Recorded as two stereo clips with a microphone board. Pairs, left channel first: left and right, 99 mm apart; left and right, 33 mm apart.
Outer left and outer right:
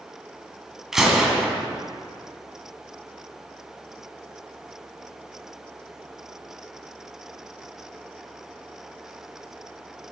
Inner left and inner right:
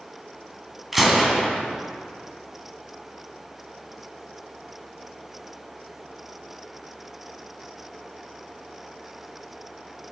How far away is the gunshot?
About 2 m.